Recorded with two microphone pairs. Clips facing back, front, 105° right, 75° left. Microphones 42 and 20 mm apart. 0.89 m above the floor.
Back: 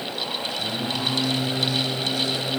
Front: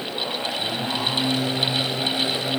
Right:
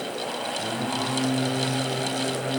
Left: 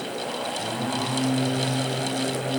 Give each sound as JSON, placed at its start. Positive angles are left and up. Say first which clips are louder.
{"t": 0.6, "sound": "singing", "louder": "even, even", "azimuth_deg": -105, "distance_m": 7.0}